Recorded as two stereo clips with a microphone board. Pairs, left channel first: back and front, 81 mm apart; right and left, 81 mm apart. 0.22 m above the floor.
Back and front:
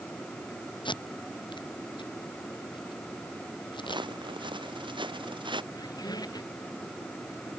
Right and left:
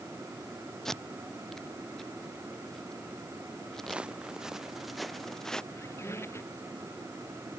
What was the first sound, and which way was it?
Tape being pulled, 175° right.